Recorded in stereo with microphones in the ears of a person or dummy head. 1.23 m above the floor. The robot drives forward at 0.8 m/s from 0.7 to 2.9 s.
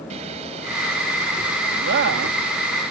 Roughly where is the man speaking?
Right.